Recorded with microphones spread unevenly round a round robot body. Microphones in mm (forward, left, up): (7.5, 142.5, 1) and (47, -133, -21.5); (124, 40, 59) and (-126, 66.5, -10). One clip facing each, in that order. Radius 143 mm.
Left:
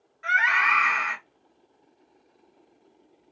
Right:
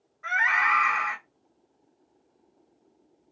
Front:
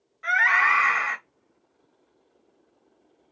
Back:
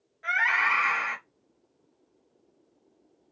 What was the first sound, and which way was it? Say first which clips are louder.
A scream: left 1 dB, front 5 dB; 75° left.